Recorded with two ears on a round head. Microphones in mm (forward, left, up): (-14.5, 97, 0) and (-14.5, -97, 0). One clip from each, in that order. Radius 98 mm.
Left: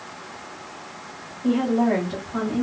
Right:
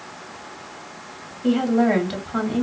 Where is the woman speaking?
60° right (ahead or behind), 2.5 m.